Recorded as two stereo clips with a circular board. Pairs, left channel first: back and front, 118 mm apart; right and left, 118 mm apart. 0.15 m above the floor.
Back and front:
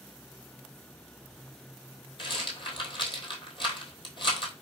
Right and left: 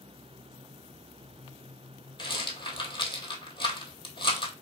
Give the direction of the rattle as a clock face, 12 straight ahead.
5 o'clock.